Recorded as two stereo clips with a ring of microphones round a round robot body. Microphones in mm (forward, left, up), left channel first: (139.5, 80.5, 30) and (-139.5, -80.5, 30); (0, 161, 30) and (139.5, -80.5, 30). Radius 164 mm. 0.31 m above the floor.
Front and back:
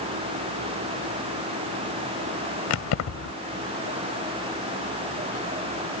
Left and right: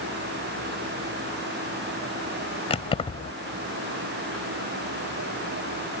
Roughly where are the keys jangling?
Ahead left.